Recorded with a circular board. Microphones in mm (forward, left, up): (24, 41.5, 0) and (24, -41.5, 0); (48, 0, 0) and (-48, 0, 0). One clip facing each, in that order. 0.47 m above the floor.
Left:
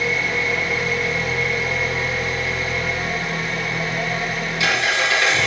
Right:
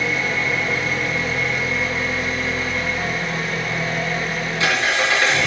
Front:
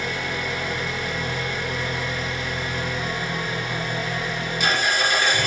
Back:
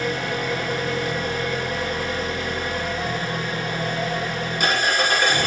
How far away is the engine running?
About 4 m.